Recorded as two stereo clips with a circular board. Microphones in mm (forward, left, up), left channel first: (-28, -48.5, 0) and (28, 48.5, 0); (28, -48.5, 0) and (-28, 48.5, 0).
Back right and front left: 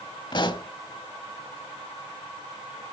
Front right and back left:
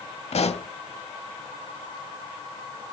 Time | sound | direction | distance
0.3 | a pop | 75° right | 0.7 m